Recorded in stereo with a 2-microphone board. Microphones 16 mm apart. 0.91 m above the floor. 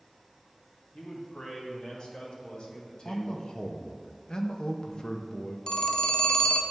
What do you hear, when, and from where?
0.9 s a man speaking: 60° left (ahead or behind), 2 m; by 3.5 s 55° left (ahead or behind), 1.4 m
3.0 s a man speaking: 45° left (ahead or behind), 0.8 m
5.7 s a phone ringing: 60° left (ahead or behind), 0.6 m